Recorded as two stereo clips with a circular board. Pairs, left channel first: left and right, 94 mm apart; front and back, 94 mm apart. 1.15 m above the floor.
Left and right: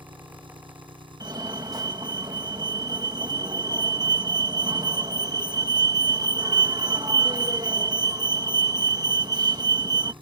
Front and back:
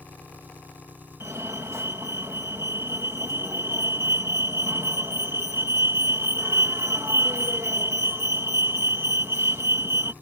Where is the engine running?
110° right.